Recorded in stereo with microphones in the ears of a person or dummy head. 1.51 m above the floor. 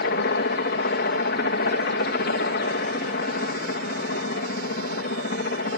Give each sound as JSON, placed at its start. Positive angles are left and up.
{"t": 0.0, "sound": "a helicopter", "side_deg": 50}